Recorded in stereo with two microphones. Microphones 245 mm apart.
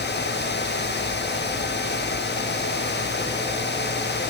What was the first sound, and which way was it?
Only background noise.